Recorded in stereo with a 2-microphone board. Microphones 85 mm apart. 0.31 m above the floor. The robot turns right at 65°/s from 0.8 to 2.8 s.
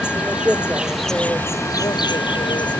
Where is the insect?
15° right; by 2.8 s 115° left.